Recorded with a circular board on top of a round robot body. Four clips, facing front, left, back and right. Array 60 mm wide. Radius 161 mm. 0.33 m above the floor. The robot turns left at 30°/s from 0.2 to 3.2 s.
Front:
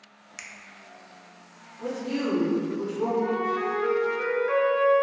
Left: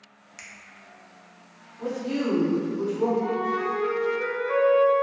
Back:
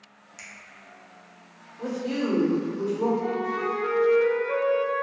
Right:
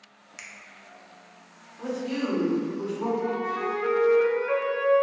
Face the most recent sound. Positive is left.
turn(degrees=-35)